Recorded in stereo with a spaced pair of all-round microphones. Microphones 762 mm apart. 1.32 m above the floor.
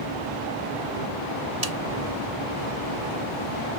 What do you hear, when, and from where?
1.6 s a snare drum: 50° right (ahead or behind)